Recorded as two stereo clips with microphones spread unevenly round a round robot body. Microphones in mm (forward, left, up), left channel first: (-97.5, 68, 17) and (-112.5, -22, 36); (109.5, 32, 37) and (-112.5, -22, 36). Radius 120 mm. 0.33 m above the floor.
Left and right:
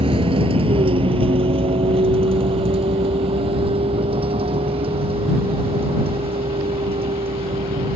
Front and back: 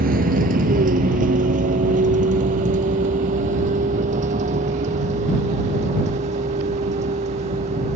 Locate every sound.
0.0 s a vehicle: 110° right; by 8.0 s 105° right